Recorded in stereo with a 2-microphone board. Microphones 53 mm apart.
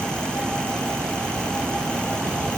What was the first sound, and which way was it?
Only background noise.